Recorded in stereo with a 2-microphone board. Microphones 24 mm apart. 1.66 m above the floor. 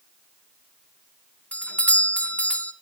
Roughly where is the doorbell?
Left.